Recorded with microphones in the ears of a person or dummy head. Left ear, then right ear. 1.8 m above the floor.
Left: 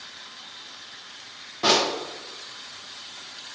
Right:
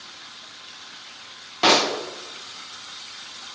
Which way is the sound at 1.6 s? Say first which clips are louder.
Right 3 dB; 25° right (ahead or behind).